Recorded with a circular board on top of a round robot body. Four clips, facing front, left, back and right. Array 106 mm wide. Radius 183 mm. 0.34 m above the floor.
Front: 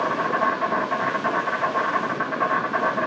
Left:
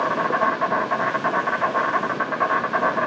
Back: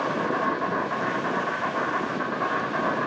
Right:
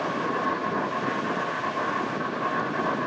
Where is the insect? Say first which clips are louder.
Left 6 dB, front 3 dB; 80° left, 2.5 m.